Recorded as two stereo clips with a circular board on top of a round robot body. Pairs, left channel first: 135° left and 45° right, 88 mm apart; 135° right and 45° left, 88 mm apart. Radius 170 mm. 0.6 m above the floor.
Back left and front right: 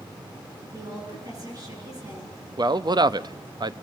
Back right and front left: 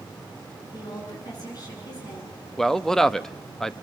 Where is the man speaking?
50° right, 1.0 m.